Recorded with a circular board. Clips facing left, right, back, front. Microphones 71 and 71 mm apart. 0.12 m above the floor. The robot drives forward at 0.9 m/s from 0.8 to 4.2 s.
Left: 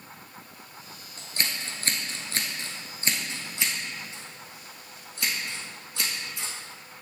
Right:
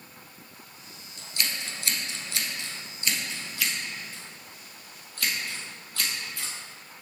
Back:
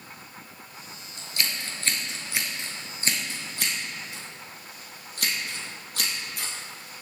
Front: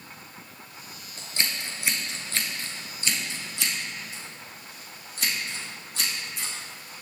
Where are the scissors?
45° left, 1.4 m; by 6.5 s 155° left, 2 m.